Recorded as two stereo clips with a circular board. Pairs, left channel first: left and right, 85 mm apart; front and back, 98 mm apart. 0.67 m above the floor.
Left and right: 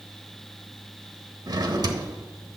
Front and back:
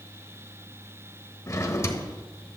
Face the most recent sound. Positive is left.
turn(degrees=-55)